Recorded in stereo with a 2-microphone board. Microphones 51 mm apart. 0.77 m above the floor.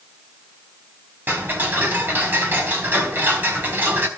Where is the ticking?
35° right (ahead or behind), 4.5 m.